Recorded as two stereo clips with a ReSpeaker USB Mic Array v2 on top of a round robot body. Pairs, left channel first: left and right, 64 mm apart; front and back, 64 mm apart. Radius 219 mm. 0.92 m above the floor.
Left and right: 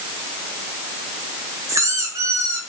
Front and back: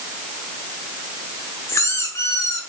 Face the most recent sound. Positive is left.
turn(degrees=-45)